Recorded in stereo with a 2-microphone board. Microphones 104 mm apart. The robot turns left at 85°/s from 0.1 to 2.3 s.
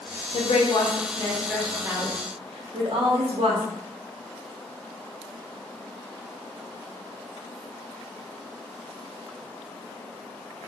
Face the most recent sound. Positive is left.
turn(degrees=-65)